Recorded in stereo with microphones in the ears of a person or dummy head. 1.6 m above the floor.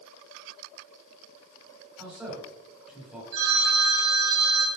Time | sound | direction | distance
2.0 | a man speaking | 5° right (ahead or behind) | 4 m
3.3 | a phone ringing | 70° right (ahead or behind) | 4.5 m